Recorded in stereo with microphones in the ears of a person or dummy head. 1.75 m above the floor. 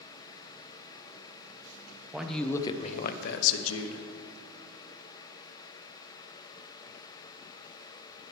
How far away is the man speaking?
About 0.7 m.